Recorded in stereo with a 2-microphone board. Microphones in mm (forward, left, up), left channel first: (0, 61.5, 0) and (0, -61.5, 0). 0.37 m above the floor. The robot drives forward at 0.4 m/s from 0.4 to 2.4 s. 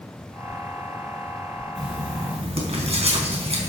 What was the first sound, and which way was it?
Writing, 55° right (ahead or behind).